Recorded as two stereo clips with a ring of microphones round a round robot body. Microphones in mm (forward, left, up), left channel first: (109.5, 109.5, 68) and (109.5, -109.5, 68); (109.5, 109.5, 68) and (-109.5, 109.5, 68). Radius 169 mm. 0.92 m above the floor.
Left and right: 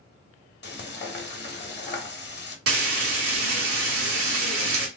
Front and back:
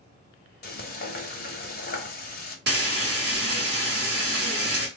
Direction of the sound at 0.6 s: 50° left.